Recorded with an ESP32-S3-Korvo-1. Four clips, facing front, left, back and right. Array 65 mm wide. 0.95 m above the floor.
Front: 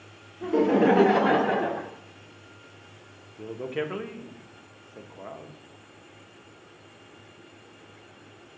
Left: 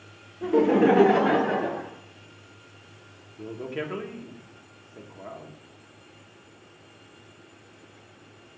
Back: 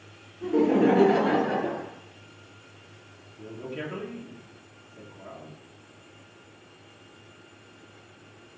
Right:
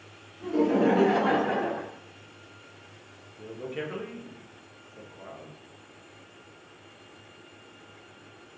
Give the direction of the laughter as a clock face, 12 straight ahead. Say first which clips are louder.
Left 4 dB, even; 10 o'clock.